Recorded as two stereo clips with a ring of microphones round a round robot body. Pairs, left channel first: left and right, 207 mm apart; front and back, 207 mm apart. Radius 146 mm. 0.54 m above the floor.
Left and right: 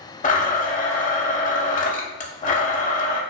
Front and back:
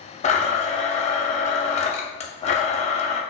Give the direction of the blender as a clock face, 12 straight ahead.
10 o'clock.